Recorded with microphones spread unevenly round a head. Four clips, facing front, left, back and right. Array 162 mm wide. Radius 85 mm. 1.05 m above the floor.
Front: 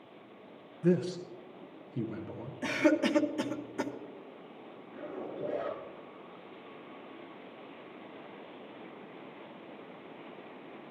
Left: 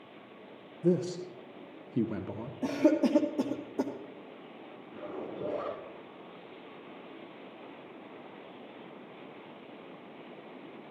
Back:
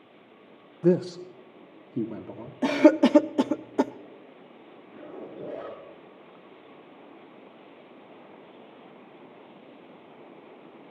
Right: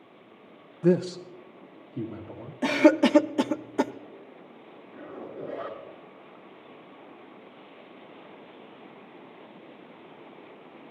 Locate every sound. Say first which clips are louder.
0.8 s a man speaking: right 5 dB, back 6 dB; 155° right, 0.6 m; by 2.5 s 135° left, 1.3 m
2.6 s a cough: right 6 dB, back 9 dB; 160° right, 0.6 m
4.9 s a zipper: even, even; 125° left, 8 m